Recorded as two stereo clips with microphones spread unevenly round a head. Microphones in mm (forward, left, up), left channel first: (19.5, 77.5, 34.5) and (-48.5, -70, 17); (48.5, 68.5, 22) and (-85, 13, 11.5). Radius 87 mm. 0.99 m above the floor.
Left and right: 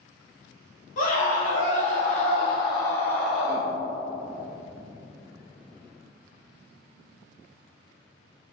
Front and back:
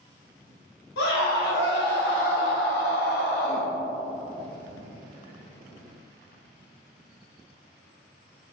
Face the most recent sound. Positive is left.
turn(degrees=-45)